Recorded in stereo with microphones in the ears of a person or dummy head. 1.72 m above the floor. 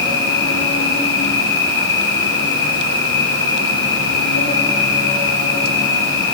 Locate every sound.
0.0 s an insect: 80° left, 7 m